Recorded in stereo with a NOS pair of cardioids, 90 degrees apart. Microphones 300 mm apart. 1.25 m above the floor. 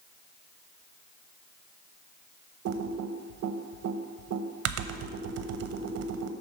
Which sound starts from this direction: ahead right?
Typing on a keyboard, at 2.6 s.